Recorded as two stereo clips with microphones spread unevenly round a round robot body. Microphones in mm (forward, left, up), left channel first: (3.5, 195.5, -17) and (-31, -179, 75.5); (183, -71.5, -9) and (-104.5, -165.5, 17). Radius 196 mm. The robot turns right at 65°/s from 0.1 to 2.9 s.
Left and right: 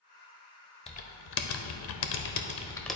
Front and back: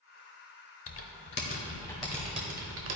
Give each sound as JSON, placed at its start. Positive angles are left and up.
{"t": 0.9, "sound": "typing on a keyboard", "azimuth_deg": 30, "distance_m": 0.7}